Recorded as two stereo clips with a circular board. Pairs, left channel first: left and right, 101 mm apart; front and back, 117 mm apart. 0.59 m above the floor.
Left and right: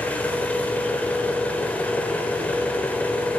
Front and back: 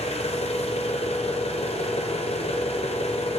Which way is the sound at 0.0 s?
15° left.